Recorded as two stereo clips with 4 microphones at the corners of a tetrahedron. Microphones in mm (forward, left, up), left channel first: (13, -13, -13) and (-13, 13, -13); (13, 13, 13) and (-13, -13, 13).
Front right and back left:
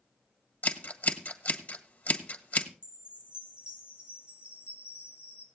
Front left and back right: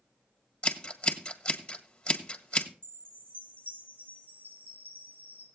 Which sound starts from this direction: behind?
A chime, at 2.8 s.